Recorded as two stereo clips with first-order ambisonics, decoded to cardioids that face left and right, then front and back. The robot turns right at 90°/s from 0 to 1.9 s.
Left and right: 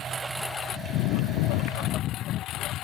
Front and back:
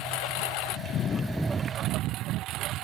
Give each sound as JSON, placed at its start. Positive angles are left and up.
{"t": 0.0, "sound": "a lawn mower", "azimuth_deg": -35}